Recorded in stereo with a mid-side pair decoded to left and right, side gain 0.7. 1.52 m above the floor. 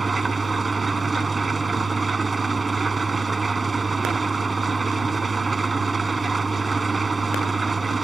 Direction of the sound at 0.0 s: 15° right.